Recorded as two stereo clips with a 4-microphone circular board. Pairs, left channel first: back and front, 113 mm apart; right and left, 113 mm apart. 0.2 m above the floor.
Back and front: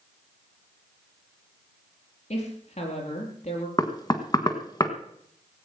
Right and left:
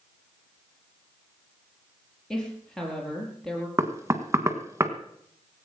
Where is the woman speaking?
175° right, 5 m.